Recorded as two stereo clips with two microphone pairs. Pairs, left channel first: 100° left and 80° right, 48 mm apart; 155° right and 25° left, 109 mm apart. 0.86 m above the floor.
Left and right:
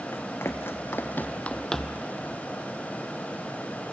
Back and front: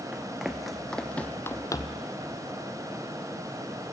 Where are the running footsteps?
105° left, 2 m; by 2.1 s 165° right, 1.1 m.